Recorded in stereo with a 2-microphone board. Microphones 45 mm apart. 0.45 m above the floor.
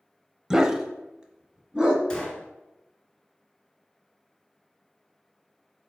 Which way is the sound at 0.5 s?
10° right (ahead or behind).